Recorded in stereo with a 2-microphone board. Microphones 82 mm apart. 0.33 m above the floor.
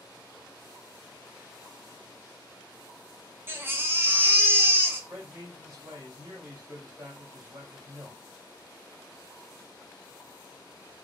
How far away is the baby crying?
About 0.5 m.